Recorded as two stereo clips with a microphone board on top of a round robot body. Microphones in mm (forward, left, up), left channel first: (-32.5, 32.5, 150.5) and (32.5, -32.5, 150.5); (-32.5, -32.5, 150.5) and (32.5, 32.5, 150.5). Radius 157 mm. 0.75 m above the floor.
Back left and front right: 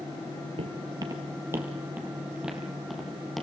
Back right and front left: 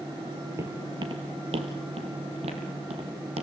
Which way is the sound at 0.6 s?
15° right.